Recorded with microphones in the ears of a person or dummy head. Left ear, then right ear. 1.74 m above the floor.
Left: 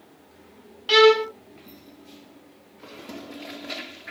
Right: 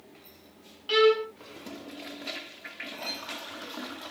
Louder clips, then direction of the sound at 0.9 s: Left 6 dB; 25° left (ahead or behind).